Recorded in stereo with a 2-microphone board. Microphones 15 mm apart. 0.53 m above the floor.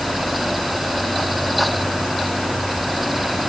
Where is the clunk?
No clunk in this recording.